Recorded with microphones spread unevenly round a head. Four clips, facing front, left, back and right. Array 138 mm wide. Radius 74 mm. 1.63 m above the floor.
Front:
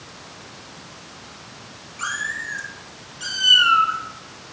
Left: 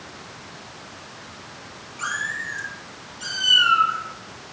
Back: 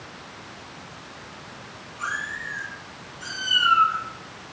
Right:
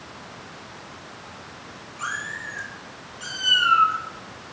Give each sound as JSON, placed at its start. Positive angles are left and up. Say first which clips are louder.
{"t": 2.0, "sound": "a cat meowing", "louder": "left 3 dB, front 2 dB", "azimuth_deg": 5, "distance_m": 6.0}